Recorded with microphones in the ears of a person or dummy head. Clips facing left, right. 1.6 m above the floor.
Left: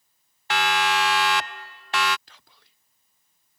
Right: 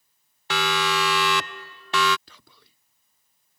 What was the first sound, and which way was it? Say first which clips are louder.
A siren: left 1 dB; 80° right.